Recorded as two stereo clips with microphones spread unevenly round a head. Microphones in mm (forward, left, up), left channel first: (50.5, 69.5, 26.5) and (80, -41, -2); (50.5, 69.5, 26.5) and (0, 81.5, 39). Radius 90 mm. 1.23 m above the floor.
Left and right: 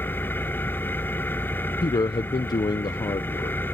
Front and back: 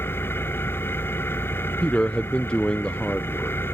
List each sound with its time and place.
0.0 s an engine running: 35° left
1.8 s a man speaking: 45° left